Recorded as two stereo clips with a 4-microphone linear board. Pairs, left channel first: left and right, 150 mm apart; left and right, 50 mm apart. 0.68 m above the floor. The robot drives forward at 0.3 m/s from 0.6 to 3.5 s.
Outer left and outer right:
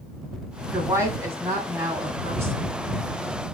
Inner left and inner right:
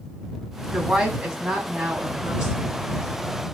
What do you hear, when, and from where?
0.7 s a woman speaking: 20° right (ahead or behind), 4 m; by 2.6 s 15° right (ahead or behind), 4.5 m